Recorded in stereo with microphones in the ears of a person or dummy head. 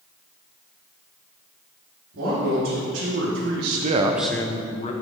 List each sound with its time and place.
2.1 s a man speaking: 75° right (ahead or behind), 3 m; by 4.9 s 35° left (ahead or behind), 1.6 m